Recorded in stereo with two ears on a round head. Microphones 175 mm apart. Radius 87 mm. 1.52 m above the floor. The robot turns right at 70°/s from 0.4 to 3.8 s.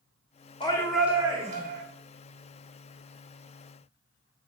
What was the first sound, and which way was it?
A shout, 155° left.